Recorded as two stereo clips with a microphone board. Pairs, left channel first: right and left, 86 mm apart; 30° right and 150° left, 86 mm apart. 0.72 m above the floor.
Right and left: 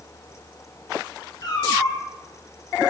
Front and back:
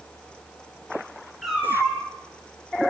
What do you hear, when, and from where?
1.4 s a cat meowing: 125° right, 1.5 m